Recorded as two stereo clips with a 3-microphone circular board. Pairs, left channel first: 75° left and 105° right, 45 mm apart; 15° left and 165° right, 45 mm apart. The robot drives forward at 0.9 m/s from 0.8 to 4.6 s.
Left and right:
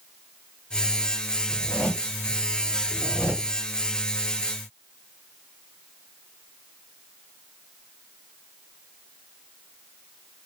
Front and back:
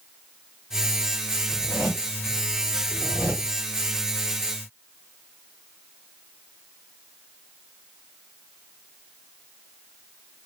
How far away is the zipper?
About 3.5 m.